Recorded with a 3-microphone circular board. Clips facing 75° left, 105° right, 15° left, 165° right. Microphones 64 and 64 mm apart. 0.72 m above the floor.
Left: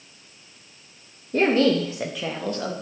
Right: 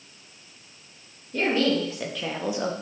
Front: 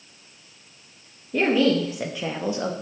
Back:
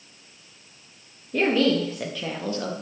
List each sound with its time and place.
1.3 s a woman speaking: 100° left, 1.0 m; by 2.7 s 45° right, 0.8 m